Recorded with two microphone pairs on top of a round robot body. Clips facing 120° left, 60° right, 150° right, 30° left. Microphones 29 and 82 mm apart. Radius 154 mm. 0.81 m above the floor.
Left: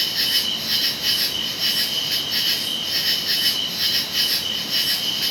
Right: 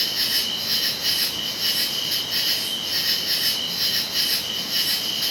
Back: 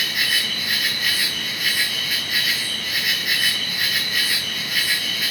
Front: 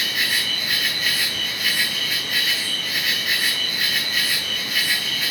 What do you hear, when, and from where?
0.0 s an insect: 125° left, 0.8 m